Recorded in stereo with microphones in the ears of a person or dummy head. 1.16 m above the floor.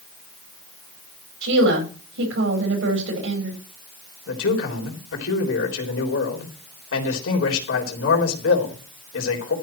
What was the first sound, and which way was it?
A woman speaking, 85° right.